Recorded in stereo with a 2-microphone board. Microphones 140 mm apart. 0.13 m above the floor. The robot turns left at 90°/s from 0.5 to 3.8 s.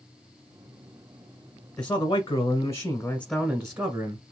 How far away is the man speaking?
About 1.1 m.